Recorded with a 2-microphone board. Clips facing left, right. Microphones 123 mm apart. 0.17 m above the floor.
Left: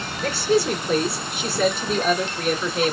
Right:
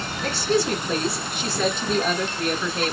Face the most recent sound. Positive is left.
turn(degrees=5)  # may be behind; listen again after turning